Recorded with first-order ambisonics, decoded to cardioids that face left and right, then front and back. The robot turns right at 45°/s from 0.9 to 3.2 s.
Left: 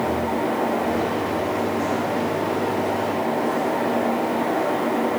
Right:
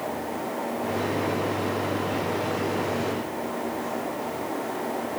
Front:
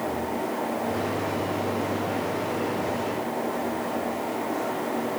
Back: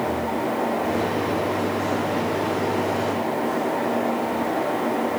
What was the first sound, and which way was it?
Only background noise.